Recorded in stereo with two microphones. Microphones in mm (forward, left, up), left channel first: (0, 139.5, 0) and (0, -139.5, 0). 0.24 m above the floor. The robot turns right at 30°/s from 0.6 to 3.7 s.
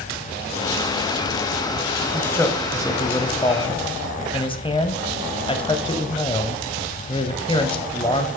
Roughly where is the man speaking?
Centre.